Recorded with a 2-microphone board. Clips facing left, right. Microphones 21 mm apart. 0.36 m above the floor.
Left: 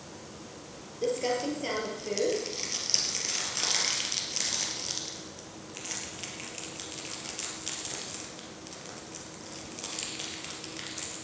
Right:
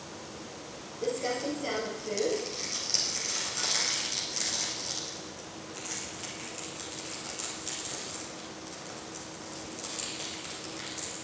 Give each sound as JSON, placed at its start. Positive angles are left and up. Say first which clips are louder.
{"t": 1.0, "sound": "crumpling", "louder": "left 2 dB", "side_deg": 20, "distance_m": 2.5}